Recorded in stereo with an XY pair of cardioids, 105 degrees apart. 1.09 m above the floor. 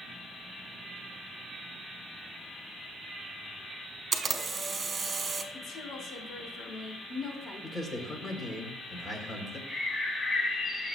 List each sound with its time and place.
4.1 s a camera shutter: 35° right, 1.8 m
5.5 s a woman speaking: 60° left, 3 m
7.6 s a man speaking: 30° left, 4 m
9.7 s a bird: 35° left, 2 m